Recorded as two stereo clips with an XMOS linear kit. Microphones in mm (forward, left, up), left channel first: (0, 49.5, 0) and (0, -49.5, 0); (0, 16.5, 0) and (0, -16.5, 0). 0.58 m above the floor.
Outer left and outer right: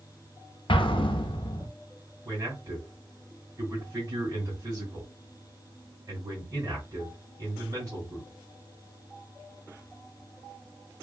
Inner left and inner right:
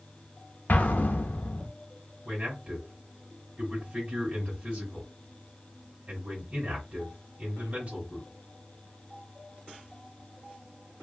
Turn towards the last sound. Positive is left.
turn(degrees=-35)  # may be behind; listen again after turning